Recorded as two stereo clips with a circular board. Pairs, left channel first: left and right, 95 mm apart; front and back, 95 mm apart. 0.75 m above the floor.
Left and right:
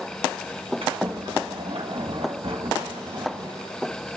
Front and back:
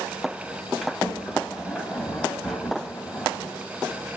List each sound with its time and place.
0.8 s a sliding door: 90° right, 3 m